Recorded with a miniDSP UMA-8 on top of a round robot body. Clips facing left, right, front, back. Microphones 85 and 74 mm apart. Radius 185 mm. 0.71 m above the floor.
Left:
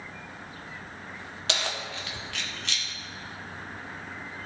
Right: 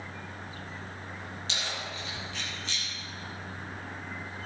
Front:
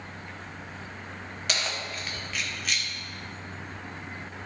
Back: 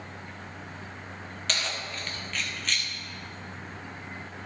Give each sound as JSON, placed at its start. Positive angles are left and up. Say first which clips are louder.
{"t": 1.5, "sound": "keys jangling", "louder": "left 6 dB, front 1 dB", "azimuth_deg": 80, "distance_m": 1.5}